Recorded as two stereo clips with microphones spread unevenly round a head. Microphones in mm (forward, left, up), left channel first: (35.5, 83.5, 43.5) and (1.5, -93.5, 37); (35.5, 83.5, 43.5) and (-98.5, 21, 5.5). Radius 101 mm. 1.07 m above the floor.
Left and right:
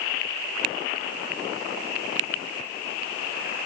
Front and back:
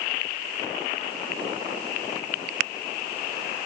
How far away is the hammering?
I don't hear hammering.